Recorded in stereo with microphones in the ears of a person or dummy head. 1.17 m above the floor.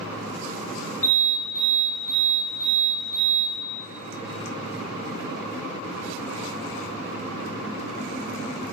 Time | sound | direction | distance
1.0 | an alarm | 40° left (ahead or behind) | 3.5 m